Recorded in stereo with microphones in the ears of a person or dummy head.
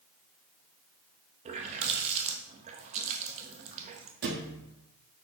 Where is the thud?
60° right (ahead or behind), 1.3 m.